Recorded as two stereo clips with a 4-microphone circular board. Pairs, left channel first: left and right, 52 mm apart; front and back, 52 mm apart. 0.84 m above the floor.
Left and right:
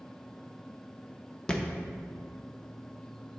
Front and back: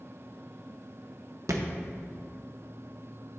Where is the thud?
165° left, 0.6 m.